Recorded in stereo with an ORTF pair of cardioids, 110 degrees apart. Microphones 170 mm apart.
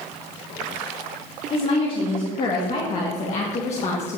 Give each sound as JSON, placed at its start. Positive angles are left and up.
{"t": 1.5, "sound": "a woman speaking", "azimuth_deg": 45, "distance_m": 2.5}